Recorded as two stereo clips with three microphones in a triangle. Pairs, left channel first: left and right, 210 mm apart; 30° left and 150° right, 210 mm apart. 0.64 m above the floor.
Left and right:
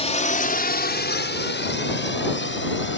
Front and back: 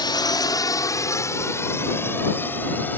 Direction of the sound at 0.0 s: 75° left.